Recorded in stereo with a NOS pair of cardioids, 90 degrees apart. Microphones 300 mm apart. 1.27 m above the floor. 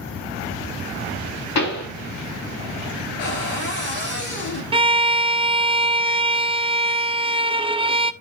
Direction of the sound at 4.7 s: 20° right.